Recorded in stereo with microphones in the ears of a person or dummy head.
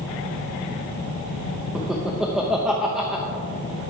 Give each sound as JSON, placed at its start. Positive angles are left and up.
{"t": 1.8, "sound": "laughter", "side_deg": -5, "distance_m": 0.8}